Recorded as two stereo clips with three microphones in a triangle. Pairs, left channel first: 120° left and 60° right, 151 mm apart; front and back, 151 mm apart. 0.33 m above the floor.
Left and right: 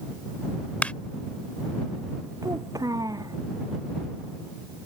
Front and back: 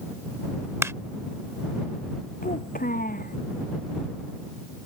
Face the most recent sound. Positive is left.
turn(degrees=5)